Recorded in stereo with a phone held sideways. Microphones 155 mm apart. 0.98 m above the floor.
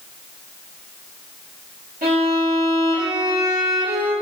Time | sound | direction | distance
2.0 | a violin | 75° right (ahead or behind) | 3 m